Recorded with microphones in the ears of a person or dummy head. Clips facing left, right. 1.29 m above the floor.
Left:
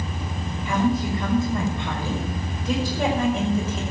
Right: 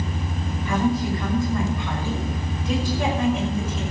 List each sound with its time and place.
0.7 s a woman speaking: 15° left (ahead or behind), 6 m; by 3.8 s 45° left (ahead or behind), 5.5 m